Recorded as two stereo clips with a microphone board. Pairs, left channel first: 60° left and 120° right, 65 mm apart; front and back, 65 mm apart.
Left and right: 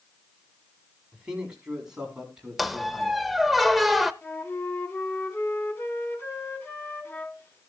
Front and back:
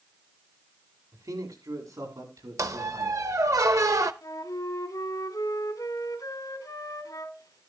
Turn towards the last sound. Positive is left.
turn(degrees=10)